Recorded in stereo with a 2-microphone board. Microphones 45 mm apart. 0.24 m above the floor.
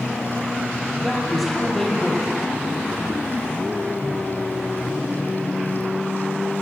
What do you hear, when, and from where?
1.0 s a man speaking: centre (ahead or behind), 6 m